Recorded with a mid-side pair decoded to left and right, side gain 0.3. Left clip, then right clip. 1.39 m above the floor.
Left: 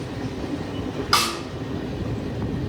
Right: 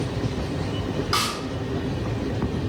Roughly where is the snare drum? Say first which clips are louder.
Left 4 dB; ahead left.